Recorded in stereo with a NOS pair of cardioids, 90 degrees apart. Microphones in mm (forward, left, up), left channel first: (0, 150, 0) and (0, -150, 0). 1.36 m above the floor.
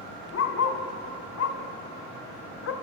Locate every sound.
0.3 s a dog barking: 55° left, 3.5 m; by 2.7 s 65° left, 2 m